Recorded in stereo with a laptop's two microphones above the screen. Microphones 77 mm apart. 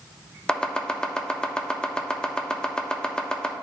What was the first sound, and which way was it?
Chopping, 10° left (ahead or behind).